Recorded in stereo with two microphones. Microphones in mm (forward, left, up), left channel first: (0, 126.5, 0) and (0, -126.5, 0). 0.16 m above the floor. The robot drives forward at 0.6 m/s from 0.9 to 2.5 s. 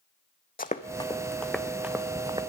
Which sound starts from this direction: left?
Running footsteps, at 0.6 s.